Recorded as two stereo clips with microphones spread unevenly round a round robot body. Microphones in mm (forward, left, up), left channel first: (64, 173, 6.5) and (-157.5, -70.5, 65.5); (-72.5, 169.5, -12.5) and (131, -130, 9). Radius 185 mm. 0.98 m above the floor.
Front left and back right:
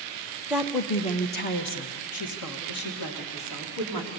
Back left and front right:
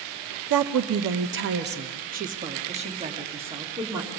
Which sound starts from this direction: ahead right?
A woman speaking, at 0.5 s.